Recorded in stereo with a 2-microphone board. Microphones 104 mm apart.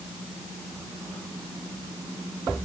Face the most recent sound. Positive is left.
No sound to turn to.